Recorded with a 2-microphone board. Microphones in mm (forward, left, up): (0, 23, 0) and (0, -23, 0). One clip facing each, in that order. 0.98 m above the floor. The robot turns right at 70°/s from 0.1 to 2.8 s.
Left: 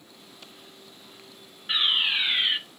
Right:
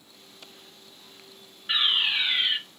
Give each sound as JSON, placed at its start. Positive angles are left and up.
{"t": 1.7, "sound": "a fire alarm", "side_deg": -5, "distance_m": 1.1}